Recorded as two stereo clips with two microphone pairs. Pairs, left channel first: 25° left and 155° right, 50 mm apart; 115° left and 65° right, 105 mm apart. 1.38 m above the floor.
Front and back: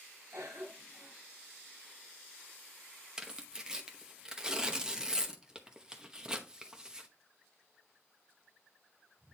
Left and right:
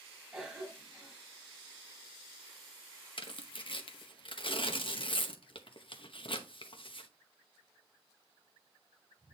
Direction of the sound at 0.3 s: 145° right.